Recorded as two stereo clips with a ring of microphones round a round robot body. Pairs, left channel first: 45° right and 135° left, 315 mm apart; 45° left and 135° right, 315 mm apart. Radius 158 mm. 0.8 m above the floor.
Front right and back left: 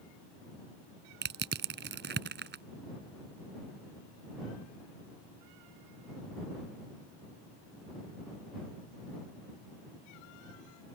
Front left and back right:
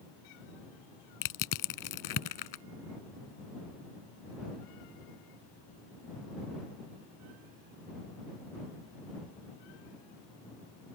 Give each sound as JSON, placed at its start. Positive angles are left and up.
{"t": 1.2, "sound": "crushing", "azimuth_deg": 75}